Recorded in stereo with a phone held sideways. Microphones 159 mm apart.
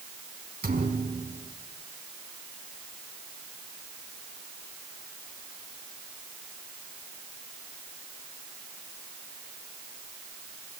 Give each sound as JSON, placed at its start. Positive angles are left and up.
{"t": 0.6, "sound": "a thud", "side_deg": -70, "distance_m": 4.5}